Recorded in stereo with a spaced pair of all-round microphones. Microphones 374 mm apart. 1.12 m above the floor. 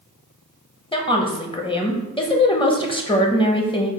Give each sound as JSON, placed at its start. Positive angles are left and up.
{"t": 0.9, "sound": "a woman speaking", "side_deg": 15, "distance_m": 0.5}